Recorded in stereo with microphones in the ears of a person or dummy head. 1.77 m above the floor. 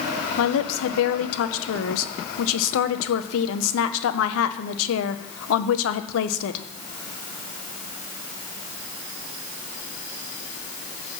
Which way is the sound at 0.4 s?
80° left.